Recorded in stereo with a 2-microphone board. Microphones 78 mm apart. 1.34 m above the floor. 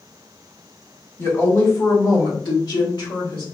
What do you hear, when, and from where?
1.2 s a woman speaking: 30° left (ahead or behind), 1.1 m; by 3.4 s 75° left (ahead or behind), 1.6 m